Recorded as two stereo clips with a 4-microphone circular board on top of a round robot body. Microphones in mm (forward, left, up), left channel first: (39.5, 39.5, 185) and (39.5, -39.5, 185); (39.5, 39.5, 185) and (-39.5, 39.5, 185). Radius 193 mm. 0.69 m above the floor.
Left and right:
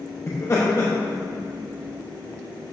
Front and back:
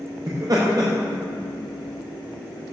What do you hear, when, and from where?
0.3 s laughter: 145° left, 1.2 m